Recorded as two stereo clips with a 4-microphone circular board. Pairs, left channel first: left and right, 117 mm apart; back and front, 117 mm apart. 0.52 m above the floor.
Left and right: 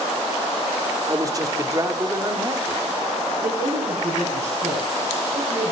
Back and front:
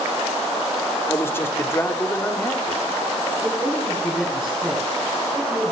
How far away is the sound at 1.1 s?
About 1.0 m.